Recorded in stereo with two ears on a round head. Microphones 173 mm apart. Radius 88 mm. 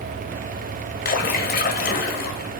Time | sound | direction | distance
1.1 | a splash | 45° left (ahead or behind) | 1.6 m